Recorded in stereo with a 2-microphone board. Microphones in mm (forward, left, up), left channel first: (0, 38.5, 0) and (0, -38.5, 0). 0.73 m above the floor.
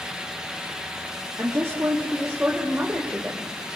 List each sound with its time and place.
1.4 s a woman speaking: 35° right (ahead or behind), 1.9 m; by 3.5 s 20° right (ahead or behind), 3 m